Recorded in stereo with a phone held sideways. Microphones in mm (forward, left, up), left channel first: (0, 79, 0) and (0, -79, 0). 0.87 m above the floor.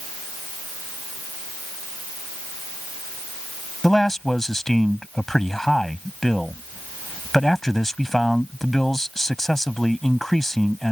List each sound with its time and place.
3.8 s a man speaking: centre (ahead or behind)